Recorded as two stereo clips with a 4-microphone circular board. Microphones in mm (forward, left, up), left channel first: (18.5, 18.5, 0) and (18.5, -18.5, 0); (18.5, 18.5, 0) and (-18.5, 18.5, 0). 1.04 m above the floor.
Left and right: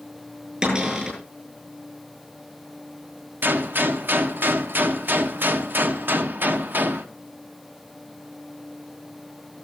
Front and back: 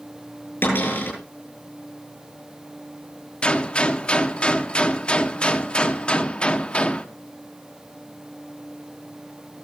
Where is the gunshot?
60° right, 1.0 m.